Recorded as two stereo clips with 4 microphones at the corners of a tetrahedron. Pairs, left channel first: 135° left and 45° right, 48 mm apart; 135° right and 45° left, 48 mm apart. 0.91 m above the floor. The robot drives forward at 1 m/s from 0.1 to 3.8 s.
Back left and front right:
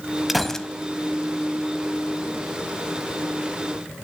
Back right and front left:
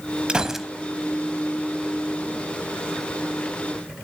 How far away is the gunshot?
About 0.7 m.